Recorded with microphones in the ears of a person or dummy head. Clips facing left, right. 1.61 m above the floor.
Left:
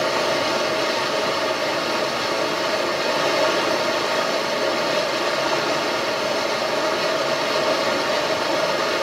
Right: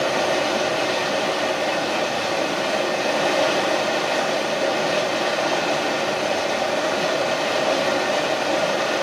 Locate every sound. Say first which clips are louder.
0.0 s running water: right 1 dB; 10° right (ahead or behind), 0.9 m